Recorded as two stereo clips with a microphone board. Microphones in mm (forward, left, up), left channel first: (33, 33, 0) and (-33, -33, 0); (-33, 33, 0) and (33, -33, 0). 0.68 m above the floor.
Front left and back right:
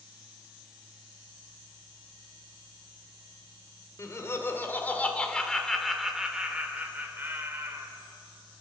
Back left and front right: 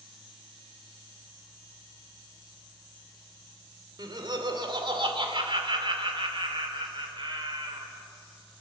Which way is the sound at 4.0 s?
10° right.